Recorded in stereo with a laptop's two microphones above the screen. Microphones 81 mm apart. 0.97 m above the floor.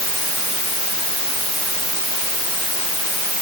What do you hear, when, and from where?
Only background noise.